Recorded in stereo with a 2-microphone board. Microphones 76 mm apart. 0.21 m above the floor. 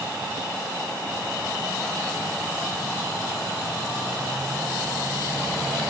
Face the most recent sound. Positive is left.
No sound to turn to.